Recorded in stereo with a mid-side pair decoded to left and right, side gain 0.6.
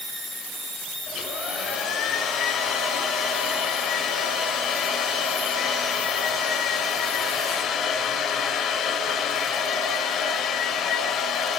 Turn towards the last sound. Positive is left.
turn(degrees=45)